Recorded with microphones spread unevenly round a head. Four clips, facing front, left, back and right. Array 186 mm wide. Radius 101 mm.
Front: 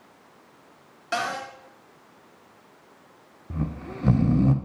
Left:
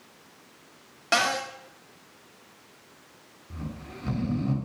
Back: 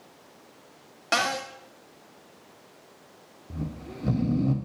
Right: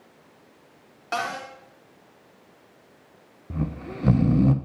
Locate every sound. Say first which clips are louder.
1.1 s a cupboard door: left 3 dB, back 1 dB; 165° left, 3 m
3.5 s snoring: right 8 dB, front 4 dB; 35° right, 1.1 m